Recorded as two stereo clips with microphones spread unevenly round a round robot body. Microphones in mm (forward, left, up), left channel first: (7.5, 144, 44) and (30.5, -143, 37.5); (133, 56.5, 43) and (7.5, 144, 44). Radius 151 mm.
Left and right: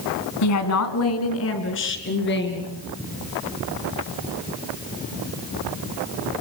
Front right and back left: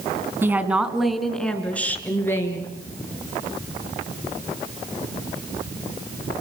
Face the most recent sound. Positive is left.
turn(degrees=40)